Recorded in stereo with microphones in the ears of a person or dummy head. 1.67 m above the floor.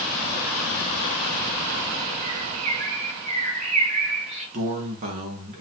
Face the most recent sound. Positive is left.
turn(degrees=-40)  # may be behind; listen again after turning